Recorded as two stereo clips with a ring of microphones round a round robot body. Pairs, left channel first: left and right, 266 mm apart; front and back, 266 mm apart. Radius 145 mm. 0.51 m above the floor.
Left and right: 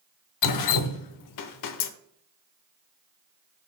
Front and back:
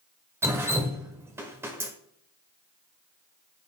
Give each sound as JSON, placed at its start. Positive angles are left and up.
{"t": 0.4, "sound": "dripping", "azimuth_deg": 100, "distance_m": 0.7}